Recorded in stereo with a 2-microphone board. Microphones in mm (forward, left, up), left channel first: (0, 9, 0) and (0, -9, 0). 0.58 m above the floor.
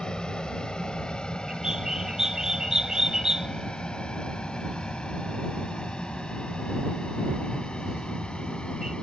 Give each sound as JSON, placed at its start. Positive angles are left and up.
{"t": 0.0, "sound": "an aircraft", "side_deg": 45}
{"t": 1.5, "sound": "a bird", "side_deg": -35}